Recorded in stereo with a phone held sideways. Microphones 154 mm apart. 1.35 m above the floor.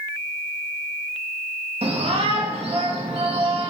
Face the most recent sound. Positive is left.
turn(degrees=-40)  # may be behind; listen again after turning